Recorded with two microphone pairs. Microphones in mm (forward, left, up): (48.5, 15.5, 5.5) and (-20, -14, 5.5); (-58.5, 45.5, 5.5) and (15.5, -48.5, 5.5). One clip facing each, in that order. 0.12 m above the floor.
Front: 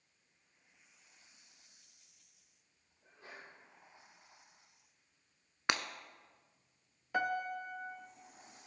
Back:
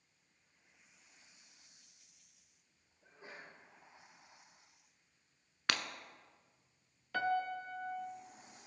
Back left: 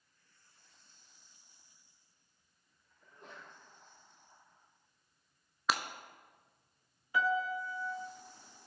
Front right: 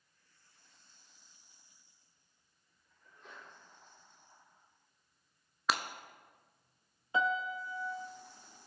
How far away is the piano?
About 0.5 m.